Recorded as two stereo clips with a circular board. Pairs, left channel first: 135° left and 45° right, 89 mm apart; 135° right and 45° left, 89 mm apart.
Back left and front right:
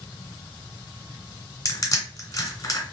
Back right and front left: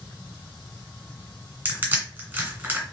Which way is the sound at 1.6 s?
105° left.